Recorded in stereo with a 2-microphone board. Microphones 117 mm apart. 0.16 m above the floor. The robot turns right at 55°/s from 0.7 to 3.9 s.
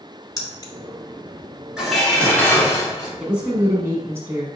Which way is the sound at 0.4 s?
35° left (ahead or behind).